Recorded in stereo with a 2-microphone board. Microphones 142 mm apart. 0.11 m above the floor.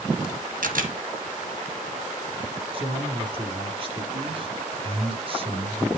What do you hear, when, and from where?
0.6 s a camera shutter: 75° right (ahead or behind), 1.7 m
2.7 s a man speaking: 40° right (ahead or behind), 2 m